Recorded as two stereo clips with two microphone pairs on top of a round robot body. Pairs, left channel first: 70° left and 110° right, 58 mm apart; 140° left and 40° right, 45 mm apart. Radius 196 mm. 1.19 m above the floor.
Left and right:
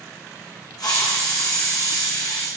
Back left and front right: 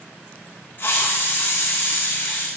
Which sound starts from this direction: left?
A hiss, at 0.8 s.